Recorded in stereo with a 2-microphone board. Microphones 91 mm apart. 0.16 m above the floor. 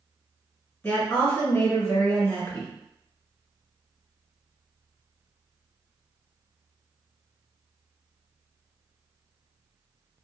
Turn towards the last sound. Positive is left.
turn(degrees=15)  # may be behind; listen again after turning